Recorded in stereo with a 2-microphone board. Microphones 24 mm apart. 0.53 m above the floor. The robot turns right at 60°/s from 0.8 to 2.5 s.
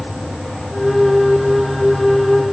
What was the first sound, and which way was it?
Only background noise.